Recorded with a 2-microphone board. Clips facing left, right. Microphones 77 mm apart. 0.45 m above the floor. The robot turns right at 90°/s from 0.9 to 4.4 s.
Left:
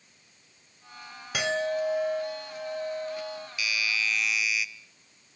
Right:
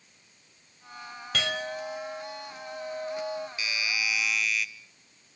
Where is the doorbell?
65° right, 1.3 m; by 4.7 s 10° left, 1.3 m.